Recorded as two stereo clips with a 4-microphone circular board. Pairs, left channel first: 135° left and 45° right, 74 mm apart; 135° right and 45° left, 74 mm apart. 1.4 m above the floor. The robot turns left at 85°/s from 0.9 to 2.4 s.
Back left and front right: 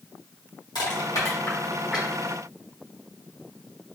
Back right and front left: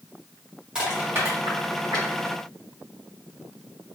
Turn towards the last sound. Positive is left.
turn(degrees=-5)